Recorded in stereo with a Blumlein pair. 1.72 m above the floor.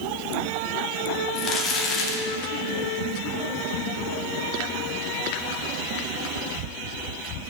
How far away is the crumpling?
About 1.8 m.